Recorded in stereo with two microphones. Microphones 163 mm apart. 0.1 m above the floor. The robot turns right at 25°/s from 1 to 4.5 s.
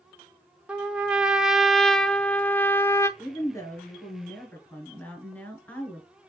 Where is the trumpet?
5° right (ahead or behind), 0.5 m; by 3.1 s 15° left (ahead or behind), 0.5 m.